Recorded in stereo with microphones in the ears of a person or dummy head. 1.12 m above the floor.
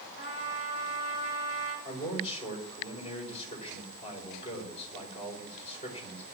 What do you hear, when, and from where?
0.2 s a trumpet: 55° left (ahead or behind), 6 m
1.9 s a man speaking: 30° left (ahead or behind), 4.5 m